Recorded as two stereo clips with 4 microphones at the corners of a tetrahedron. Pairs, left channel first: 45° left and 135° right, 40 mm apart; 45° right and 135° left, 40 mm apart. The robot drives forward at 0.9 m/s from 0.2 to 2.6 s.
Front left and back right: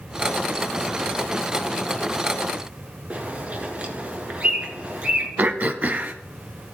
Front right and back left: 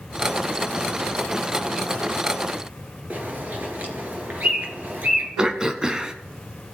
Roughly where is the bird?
Behind.